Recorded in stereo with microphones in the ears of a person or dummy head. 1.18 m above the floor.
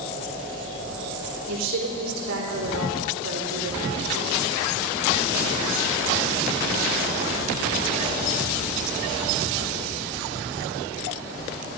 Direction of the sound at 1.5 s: 70° right (ahead or behind).